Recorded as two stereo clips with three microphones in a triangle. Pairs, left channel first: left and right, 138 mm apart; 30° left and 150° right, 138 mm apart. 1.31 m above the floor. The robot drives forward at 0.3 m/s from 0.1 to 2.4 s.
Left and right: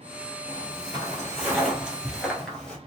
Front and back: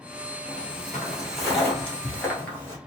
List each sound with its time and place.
0.5 s footsteps: 75° right, 1.5 m; by 2.8 s 30° left, 1.3 m